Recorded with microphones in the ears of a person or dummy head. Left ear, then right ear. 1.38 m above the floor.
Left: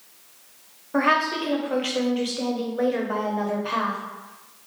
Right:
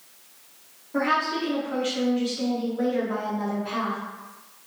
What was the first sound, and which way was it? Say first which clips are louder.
A woman speaking: left 3 dB; 30° left (ahead or behind).